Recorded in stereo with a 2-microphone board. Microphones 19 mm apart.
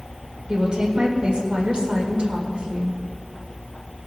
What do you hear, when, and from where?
0.5 s a woman speaking: 55° right (ahead or behind), 2.5 m